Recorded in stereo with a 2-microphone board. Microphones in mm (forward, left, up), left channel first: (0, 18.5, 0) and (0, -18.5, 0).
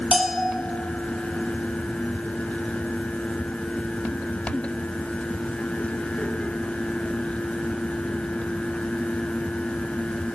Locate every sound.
0.1 s a bell: 5° right (ahead or behind), 1.0 m